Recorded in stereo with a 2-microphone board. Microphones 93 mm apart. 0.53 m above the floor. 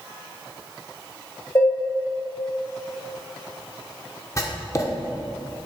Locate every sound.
1.6 s dishes clattering: 35° left (ahead or behind), 1.7 m
4.4 s writing: 35° left (ahead or behind), 1.0 m